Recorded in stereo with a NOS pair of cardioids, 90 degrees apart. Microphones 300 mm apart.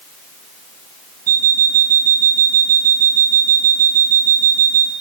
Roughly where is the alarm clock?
Ahead right.